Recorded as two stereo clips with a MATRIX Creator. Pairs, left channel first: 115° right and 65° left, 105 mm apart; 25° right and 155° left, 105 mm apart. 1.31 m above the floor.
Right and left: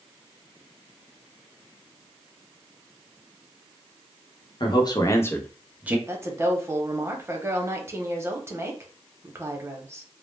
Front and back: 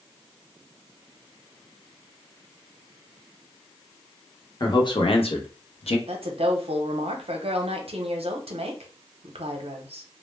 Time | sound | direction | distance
4.6 | a man speaking | 70° right | 0.8 m
6.1 | a woman speaking | 130° left | 0.6 m